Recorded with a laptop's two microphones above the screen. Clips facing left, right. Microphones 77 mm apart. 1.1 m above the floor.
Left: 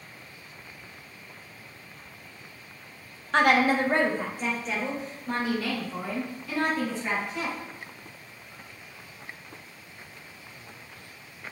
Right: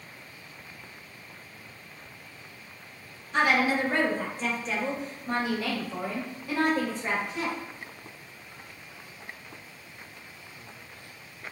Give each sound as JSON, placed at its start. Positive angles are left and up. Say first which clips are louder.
{"t": 3.3, "sound": "a woman speaking", "louder": "left 3 dB", "side_deg": 65, "distance_m": 0.5}